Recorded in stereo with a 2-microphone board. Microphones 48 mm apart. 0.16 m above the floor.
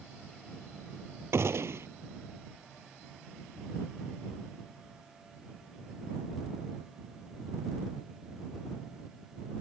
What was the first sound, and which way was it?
A gunshot, 65° right (ahead or behind).